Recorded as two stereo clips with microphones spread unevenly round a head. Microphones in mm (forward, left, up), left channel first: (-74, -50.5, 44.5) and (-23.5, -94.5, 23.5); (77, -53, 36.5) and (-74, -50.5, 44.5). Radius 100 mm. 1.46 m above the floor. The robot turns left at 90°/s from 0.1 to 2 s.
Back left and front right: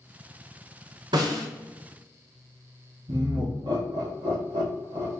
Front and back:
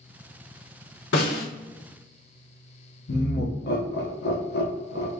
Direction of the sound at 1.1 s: 10° left.